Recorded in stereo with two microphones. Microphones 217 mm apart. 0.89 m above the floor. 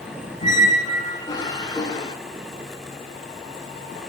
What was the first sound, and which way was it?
A squeak, 20° left (ahead or behind).